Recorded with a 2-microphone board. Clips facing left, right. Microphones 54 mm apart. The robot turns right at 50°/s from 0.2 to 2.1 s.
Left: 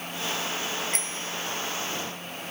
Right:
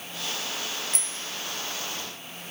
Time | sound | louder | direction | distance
0.9 | a bicycle bell | left 4 dB | 50° left (ahead or behind) | 2.5 m